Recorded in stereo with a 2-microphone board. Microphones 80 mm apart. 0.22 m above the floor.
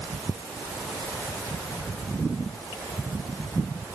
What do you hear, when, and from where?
Only background noise.